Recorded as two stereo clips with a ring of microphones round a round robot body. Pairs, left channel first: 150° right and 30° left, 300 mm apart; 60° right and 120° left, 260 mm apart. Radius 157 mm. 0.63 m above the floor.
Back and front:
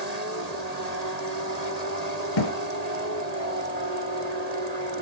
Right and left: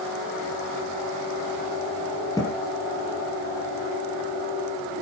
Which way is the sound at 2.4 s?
140° right.